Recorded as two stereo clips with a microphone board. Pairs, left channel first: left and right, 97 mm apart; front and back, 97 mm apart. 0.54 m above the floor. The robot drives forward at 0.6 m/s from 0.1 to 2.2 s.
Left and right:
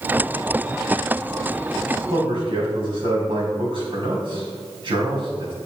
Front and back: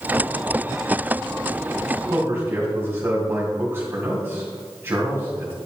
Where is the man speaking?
115° right, 3 m.